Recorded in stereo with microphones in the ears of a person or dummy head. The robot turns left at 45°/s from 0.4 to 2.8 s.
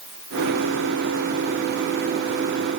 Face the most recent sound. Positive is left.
No sound to turn to.